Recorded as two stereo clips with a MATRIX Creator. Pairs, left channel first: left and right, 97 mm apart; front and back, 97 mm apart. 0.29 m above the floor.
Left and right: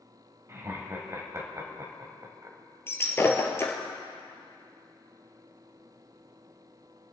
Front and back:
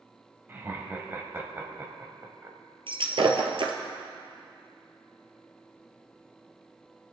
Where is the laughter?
130° right, 1.8 m.